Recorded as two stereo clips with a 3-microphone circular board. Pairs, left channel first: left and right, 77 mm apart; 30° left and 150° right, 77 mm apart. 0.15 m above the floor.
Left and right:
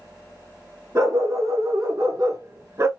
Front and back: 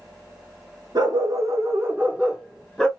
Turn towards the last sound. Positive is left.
turn(degrees=-50)